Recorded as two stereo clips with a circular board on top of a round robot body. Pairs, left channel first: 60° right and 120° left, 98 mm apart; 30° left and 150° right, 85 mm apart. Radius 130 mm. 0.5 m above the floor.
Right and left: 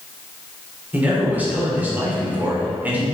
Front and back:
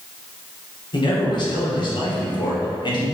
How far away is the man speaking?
About 2.5 m.